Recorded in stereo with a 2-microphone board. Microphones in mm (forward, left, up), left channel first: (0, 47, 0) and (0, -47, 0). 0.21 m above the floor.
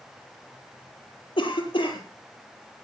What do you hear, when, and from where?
1.4 s a cough: 70° left (ahead or behind), 5 m